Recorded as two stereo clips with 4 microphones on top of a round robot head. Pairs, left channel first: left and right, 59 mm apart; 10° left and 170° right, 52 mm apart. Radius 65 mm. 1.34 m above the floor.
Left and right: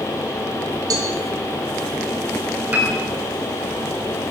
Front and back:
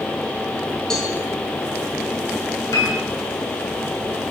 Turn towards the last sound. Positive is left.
turn(degrees=-30)